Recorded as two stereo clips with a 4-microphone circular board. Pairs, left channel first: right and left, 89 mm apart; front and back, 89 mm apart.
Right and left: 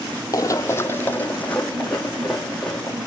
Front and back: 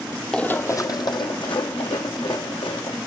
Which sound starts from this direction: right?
Running footsteps, at 0.3 s.